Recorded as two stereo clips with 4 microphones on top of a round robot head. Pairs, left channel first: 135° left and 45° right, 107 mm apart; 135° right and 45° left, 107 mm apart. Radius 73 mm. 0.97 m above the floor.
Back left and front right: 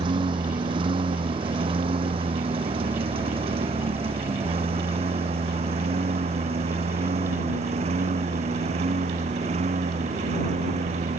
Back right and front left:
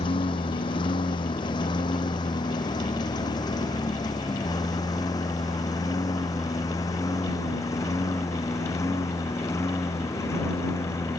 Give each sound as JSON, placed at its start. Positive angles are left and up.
{"t": 0.0, "sound": "a lawn mower", "azimuth_deg": -90}